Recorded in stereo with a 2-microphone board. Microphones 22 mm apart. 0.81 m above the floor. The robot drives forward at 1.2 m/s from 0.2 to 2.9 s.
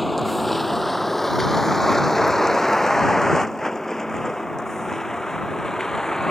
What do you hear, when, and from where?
0.0 s a vehicle: 5° right (ahead or behind); by 6.3 s 20° left (ahead or behind)